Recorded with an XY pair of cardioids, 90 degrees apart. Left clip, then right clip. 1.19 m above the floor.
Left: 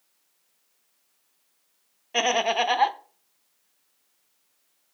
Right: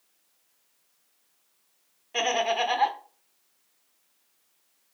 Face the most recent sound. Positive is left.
turn(degrees=40)